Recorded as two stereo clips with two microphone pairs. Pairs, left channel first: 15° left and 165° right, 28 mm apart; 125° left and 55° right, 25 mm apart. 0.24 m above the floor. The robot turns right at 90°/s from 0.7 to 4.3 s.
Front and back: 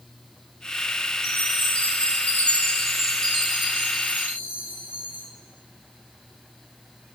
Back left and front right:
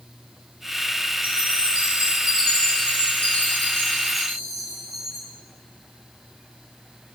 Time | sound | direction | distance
1.2 | a chime | 45° right | 4.5 m